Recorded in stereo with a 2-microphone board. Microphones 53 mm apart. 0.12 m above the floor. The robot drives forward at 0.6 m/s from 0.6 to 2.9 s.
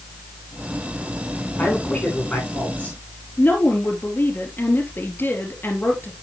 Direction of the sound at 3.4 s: 40° left (ahead or behind).